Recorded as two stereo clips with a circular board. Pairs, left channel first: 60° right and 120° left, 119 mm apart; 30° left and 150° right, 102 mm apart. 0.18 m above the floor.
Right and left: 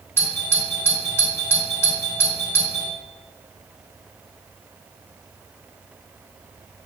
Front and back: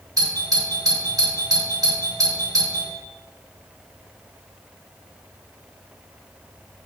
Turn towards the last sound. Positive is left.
turn(degrees=-115)